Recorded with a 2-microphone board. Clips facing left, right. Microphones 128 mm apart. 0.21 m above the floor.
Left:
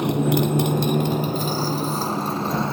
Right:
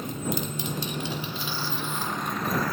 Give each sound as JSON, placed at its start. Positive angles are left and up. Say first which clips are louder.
{"t": 0.0, "sound": "a motorcycle", "louder": "left 11 dB", "side_deg": 80}